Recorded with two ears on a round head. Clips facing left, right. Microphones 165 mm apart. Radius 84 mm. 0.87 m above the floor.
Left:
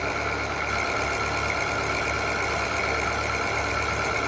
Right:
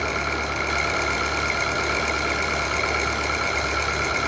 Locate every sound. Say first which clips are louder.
0.0 s an engine running: right 2 dB; 45° right (ahead or behind), 6 m